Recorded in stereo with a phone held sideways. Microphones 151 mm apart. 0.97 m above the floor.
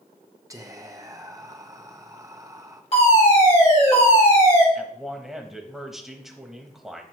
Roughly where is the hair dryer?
No hair dryer in this recording.